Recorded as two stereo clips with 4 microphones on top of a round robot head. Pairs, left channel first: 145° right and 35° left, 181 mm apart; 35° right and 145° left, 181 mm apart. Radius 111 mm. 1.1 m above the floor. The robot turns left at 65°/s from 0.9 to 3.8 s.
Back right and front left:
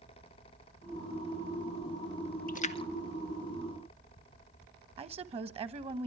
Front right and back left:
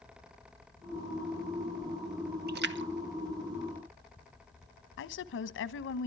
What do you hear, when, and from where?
2.5 s a splash: 175° left, 1.1 m; by 4.6 s 90° left, 1.1 m
5.0 s a woman speaking: 20° right, 1.1 m